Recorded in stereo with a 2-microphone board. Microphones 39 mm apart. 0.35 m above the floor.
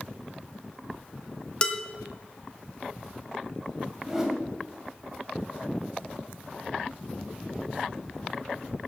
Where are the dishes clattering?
25° left (ahead or behind), 1.2 m.